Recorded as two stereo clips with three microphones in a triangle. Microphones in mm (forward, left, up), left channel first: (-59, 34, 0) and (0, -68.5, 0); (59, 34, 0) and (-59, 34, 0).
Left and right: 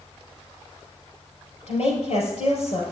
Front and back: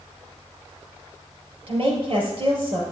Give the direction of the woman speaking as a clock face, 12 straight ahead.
7 o'clock.